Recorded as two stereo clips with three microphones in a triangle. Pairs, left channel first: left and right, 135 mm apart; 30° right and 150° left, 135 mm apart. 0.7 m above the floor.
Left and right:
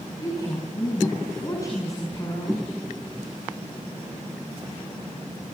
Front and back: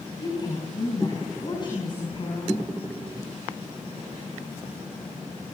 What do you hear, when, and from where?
0.2 s a woman speaking: 25° left, 5 m